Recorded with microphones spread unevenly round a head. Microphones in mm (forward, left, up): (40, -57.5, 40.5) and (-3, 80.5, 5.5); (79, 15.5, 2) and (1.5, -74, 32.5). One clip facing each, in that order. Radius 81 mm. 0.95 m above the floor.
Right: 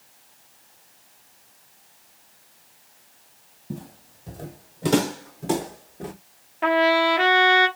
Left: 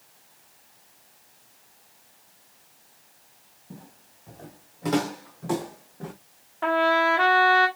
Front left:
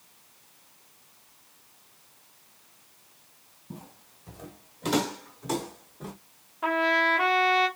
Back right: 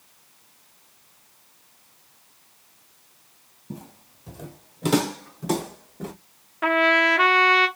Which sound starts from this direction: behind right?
A trumpet, at 6.6 s.